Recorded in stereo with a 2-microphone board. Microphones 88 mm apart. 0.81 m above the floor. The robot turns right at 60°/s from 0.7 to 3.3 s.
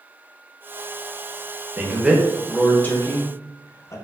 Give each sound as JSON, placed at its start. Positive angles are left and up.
{"t": 1.8, "sound": "a man speaking", "side_deg": -25, "distance_m": 0.7}